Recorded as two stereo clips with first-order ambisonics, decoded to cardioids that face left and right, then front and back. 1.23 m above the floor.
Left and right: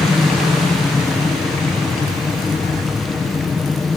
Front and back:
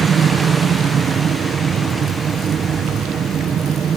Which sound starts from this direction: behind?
An aircraft, at 0.0 s.